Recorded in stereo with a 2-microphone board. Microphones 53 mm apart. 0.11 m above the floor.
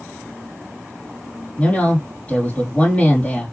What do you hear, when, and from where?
1.6 s a woman speaking: 25° left (ahead or behind), 3.5 m